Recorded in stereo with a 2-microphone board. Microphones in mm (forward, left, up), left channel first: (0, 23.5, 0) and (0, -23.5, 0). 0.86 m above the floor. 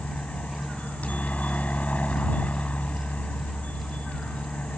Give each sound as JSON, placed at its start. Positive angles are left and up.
{"t": 0.0, "sound": "a helicopter", "side_deg": 30}